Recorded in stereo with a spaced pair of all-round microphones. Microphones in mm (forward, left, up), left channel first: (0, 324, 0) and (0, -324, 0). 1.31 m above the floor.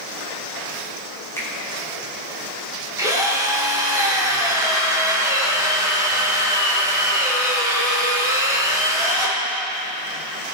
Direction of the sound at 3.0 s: 5° right (ahead or behind).